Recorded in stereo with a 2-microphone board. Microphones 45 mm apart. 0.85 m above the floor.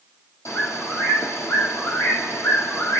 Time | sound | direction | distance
0.5 | a bird | 80° left | 7.5 m